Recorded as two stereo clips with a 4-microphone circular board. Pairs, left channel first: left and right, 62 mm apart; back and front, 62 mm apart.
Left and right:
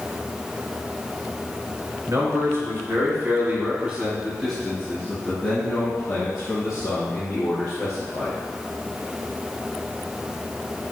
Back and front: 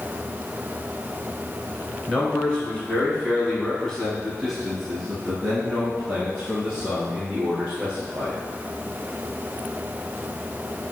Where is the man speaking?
115° right, 1.7 m; by 8.4 s 70° left, 2.5 m.